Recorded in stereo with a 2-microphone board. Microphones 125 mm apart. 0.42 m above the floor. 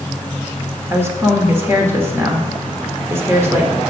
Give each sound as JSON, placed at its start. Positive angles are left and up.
{"t": 0.9, "sound": "a woman speaking", "side_deg": -20, "distance_m": 1.1}